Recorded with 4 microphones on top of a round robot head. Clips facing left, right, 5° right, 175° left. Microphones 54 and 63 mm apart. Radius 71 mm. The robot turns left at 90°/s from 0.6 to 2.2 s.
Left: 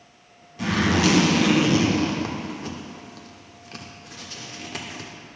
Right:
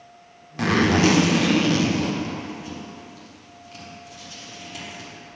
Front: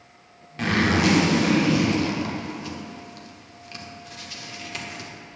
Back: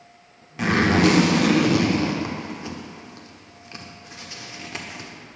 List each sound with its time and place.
0.6 s a zipper: 100° right, 1.2 m; by 5.1 s 115° left, 1.2 m